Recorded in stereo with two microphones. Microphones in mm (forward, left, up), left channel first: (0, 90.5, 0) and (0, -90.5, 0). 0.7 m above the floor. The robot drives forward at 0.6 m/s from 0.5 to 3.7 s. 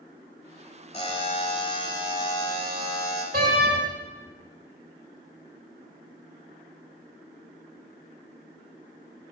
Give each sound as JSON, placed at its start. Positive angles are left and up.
{"t": 0.9, "sound": "a buzzer", "side_deg": 35, "distance_m": 1.7}
{"t": 3.3, "sound": "a door slam", "side_deg": -50, "distance_m": 1.8}